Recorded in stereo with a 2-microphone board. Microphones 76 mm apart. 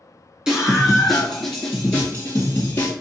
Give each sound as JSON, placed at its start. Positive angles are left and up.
{"t": 0.5, "sound": "a scream", "side_deg": -10, "distance_m": 1.7}